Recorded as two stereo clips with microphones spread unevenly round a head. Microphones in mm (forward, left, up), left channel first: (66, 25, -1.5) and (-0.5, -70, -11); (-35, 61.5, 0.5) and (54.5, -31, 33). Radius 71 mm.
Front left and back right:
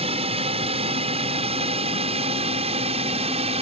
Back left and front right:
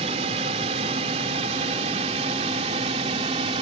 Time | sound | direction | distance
0.0 | a drone | 95° right | ?